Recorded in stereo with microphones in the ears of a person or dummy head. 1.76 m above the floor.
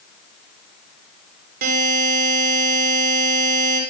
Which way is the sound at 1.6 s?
55° right (ahead or behind).